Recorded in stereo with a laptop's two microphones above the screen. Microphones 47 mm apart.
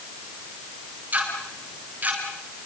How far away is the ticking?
About 7.5 m.